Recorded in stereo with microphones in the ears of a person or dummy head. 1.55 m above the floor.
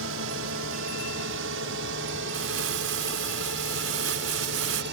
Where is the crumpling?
65° right (ahead or behind).